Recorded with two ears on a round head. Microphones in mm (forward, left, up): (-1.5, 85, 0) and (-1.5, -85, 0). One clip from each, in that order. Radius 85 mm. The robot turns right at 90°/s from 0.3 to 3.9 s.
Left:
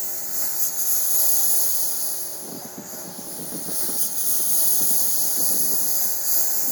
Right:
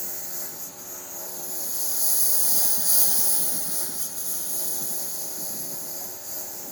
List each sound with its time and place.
0.0 s a lawn mower: 10° left (ahead or behind); by 6.7 s 50° left (ahead or behind)